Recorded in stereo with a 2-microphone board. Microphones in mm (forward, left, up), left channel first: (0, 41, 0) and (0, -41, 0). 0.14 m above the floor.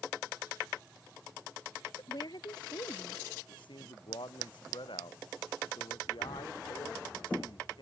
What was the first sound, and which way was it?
A woman speaking, 60° left (ahead or behind).